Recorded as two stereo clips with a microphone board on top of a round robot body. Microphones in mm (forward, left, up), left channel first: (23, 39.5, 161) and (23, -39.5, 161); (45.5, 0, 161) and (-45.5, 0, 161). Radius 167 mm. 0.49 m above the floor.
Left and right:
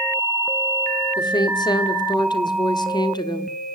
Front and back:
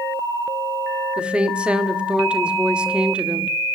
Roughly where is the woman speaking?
Left.